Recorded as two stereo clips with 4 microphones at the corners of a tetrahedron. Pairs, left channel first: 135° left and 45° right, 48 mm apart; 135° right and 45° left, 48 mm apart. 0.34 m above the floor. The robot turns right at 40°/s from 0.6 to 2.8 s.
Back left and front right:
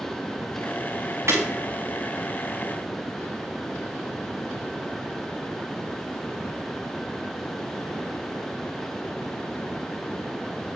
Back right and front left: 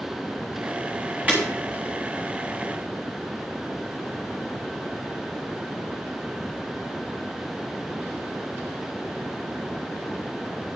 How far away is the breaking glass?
About 4 m.